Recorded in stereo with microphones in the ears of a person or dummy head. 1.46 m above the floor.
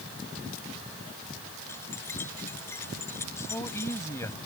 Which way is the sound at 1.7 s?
15° left (ahead or behind).